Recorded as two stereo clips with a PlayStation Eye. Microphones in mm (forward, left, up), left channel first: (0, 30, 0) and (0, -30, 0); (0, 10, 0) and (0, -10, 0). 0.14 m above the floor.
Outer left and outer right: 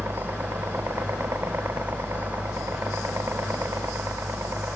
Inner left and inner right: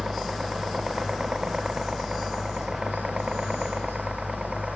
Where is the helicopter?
45° right (ahead or behind); by 4.8 s 50° right (ahead or behind).